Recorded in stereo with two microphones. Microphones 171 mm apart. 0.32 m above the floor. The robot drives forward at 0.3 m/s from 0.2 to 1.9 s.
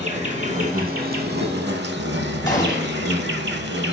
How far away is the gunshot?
About 1.3 m.